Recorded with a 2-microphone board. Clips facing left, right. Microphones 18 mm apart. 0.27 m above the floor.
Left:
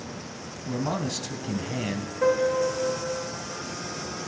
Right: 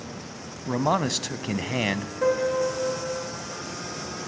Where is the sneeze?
No sneeze in this recording.